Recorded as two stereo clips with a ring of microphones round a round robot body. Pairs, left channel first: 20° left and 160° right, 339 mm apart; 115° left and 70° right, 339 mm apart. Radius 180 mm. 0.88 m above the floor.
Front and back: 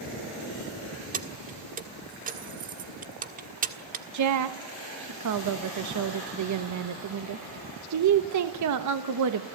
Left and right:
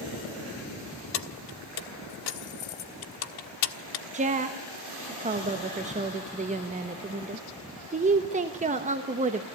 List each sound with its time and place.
1.1 s keys jangling: 135° left, 1.4 m
4.1 s a woman speaking: 135° right, 1.2 m